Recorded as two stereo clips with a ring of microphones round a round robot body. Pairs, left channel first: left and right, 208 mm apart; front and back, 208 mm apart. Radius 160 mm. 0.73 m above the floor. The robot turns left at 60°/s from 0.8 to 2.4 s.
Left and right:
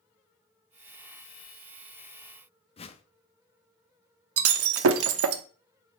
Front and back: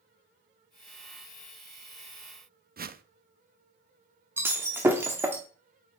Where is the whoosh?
145° left, 0.8 m.